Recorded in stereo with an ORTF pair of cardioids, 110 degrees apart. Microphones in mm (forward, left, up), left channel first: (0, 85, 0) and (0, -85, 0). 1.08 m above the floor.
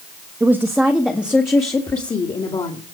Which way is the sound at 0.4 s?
15° right.